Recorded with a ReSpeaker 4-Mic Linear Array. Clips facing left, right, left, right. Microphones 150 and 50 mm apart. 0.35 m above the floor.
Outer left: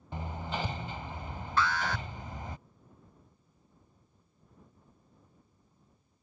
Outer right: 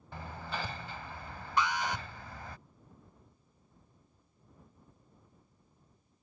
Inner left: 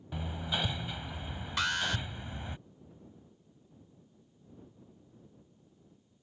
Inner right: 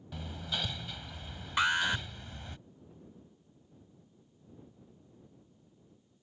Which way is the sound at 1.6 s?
15° right (ahead or behind).